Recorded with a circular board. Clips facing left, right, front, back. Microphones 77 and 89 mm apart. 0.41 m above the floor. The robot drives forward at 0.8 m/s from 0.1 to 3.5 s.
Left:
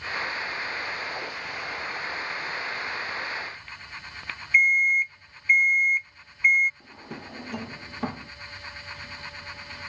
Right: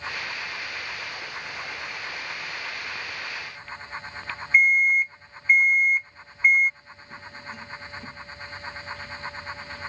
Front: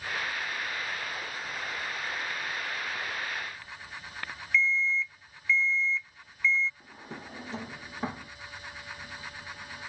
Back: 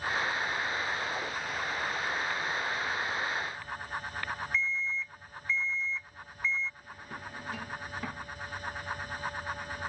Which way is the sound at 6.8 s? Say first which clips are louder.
Left 2 dB, even; 60° left.